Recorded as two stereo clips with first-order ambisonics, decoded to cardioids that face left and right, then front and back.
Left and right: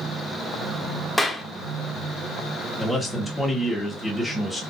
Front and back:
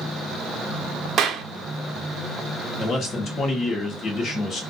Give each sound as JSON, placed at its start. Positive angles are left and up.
{"t": 1.2, "sound": "a clap", "azimuth_deg": 170, "distance_m": 0.5}
{"t": 2.8, "sound": "a man speaking", "azimuth_deg": 20, "distance_m": 1.0}